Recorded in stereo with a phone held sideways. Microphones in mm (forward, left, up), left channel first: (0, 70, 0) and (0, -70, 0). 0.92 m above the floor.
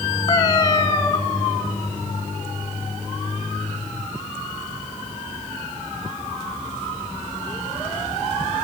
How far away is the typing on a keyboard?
No typing on a keyboard in this recording.